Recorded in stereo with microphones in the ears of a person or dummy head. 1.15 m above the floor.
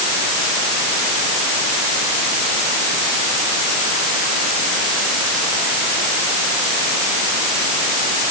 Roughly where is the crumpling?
I don't hear crumpling.